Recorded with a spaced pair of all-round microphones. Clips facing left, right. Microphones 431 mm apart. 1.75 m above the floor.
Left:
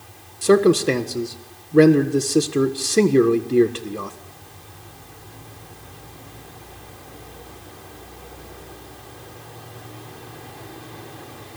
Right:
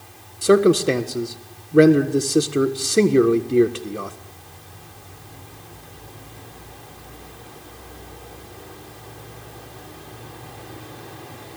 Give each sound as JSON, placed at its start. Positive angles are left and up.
{"t": 0.4, "sound": "a man speaking", "side_deg": 5, "distance_m": 1.4}